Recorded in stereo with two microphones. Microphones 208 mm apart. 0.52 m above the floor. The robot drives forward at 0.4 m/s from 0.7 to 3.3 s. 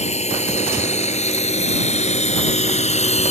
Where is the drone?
30° left (ahead or behind).